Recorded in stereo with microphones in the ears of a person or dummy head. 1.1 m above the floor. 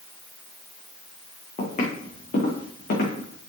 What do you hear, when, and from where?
1.6 s footsteps: 50° left (ahead or behind), 4 m; by 3.3 s 60° left (ahead or behind), 4.5 m